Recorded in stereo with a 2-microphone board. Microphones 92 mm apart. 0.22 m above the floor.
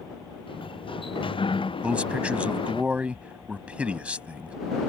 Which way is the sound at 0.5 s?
70° left (ahead or behind).